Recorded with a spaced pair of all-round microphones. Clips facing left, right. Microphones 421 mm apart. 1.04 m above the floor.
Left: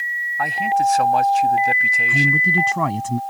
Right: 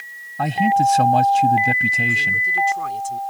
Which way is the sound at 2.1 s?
80° left.